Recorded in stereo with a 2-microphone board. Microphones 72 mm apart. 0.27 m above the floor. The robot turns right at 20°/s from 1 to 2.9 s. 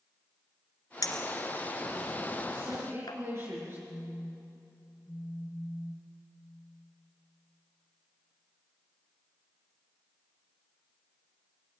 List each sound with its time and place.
1.0 s a clink: 60° left (ahead or behind), 1.8 m; by 3.2 s 70° left (ahead or behind), 1.8 m
2.5 s a woman speaking: 30° right (ahead or behind), 5 m; by 3.8 s 40° right (ahead or behind), 5 m
3.9 s a phone buzzing: 10° left (ahead or behind), 4.5 m